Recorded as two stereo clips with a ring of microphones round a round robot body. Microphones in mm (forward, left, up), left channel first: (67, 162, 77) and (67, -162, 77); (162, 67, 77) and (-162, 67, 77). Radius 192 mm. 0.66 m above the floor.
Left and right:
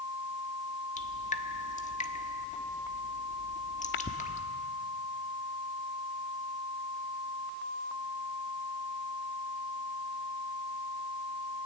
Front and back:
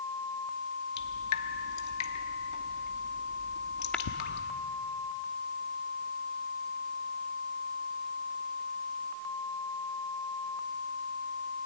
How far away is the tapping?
About 1.1 m.